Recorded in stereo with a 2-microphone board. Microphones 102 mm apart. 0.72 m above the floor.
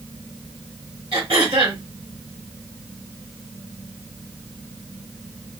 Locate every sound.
1.1 s throat clearing: 55° right (ahead or behind), 3 m